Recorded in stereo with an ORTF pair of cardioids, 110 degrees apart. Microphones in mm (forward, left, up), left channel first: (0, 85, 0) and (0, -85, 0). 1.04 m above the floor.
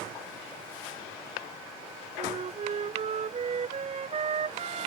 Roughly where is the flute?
Ahead right.